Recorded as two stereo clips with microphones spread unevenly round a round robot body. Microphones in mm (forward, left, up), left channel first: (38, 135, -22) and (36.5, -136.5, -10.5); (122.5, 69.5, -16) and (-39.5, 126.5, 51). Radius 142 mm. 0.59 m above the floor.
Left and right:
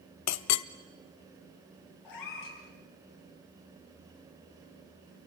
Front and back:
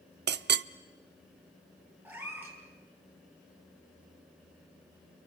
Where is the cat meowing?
80° left, 6 m.